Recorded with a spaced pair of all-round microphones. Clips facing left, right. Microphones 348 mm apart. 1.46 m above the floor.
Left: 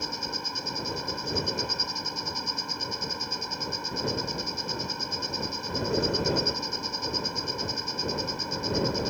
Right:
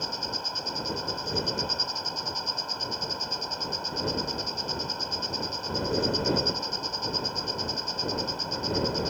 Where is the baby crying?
No baby crying in this recording.